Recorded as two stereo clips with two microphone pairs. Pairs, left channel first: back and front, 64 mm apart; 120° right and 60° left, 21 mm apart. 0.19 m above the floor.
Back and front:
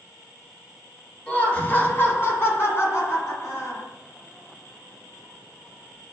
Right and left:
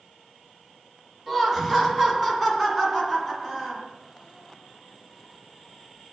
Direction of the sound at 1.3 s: 155° left.